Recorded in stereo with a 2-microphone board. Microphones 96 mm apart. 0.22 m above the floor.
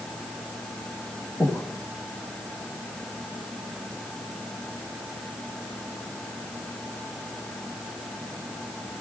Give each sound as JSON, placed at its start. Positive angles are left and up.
{"t": 1.4, "sound": "breathing", "side_deg": 25, "distance_m": 1.0}